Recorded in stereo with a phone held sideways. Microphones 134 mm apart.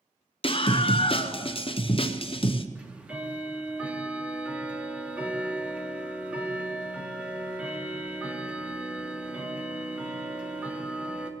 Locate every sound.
0.4 s a scream: 45° left (ahead or behind), 0.5 m
2.8 s ticking: 10° right (ahead or behind), 1.2 m